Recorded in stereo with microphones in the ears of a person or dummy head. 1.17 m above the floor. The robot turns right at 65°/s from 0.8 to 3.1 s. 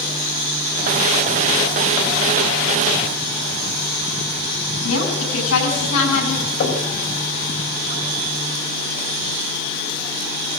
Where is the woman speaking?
85° left, 10 m.